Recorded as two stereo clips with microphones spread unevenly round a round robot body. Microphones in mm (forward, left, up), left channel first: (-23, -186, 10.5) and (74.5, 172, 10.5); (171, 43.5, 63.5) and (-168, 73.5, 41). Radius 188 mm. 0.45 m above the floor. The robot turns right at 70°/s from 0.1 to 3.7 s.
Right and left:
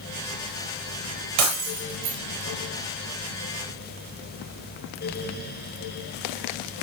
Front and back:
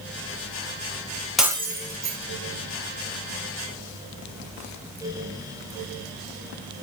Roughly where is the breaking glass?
Left.